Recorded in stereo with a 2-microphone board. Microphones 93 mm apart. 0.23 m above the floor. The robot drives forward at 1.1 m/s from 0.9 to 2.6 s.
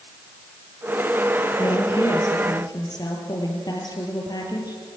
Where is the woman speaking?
55° left (ahead or behind), 4.5 m; by 4.8 s 45° left (ahead or behind), 5 m.